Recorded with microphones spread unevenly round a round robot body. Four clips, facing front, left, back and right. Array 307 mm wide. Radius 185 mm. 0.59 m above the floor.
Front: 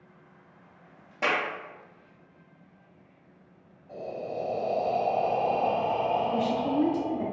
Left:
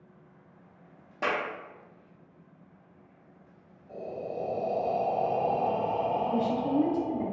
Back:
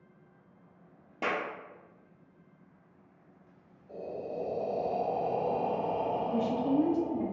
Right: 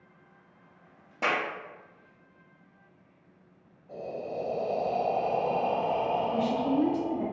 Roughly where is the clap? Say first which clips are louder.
Right 1 dB, front 5 dB; behind.